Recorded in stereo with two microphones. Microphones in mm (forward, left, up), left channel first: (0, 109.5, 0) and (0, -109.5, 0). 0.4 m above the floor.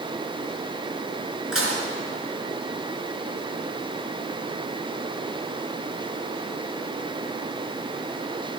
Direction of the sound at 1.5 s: 80° right.